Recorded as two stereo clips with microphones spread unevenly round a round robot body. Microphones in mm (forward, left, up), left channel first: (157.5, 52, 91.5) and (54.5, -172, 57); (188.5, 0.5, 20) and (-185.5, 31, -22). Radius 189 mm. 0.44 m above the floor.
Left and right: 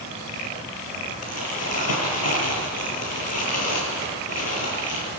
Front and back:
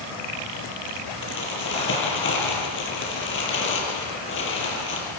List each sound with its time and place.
1.2 s crumpling: 55° left, 7 m